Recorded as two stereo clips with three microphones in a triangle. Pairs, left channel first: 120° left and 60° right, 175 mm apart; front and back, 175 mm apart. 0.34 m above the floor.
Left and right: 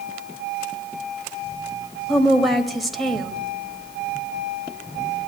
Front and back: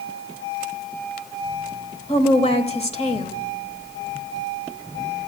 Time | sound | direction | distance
2.1 | a woman speaking | 30° left | 1.2 m